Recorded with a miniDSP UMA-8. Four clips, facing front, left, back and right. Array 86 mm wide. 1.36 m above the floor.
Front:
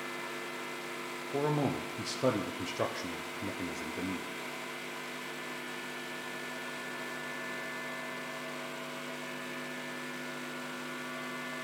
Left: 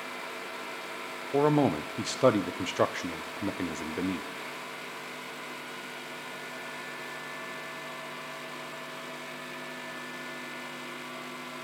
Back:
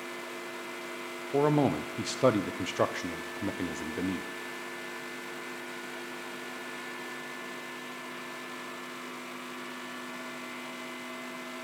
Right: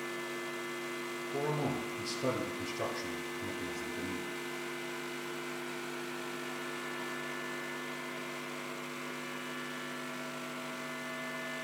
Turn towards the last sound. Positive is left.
turn(degrees=120)